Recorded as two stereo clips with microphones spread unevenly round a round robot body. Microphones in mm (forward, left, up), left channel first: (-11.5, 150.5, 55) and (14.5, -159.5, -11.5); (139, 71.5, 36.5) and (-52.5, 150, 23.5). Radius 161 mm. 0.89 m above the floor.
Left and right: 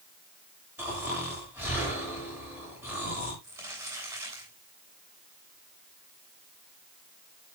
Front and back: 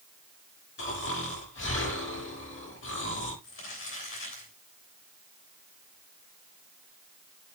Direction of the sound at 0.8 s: Straight ahead.